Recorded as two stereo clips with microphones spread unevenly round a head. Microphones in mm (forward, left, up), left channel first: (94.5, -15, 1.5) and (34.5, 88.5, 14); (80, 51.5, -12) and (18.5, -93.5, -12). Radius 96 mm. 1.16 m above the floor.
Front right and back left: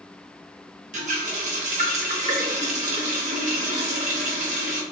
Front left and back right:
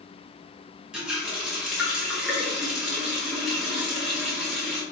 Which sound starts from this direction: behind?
A running tap, at 0.9 s.